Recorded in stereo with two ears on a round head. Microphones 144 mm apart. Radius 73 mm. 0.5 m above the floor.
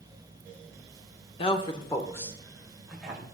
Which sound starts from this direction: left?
A woman speaking, at 1.4 s.